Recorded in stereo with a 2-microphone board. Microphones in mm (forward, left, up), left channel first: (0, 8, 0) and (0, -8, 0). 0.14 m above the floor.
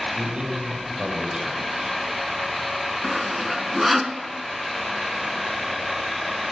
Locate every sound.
0.1 s a man speaking: 70° right (ahead or behind), 5 m
3.0 s sawing: 10° right (ahead or behind), 0.7 m